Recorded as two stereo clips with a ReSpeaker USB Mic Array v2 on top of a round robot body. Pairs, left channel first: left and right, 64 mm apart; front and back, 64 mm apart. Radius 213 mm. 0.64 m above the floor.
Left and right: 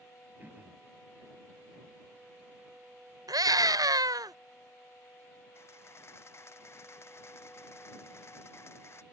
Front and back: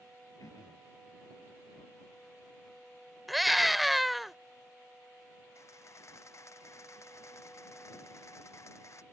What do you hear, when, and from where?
0.4 s throat clearing: 30° right
3.3 s a scream: 90° right
5.5 s a camera shutter: 45° left